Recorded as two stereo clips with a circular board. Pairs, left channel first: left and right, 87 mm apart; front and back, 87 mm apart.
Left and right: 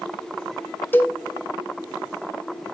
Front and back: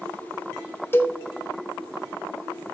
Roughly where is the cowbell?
Ahead left.